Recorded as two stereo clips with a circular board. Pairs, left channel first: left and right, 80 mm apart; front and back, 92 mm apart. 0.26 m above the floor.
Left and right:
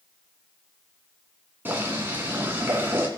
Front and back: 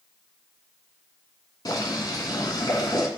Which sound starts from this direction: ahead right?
Boiling, at 1.6 s.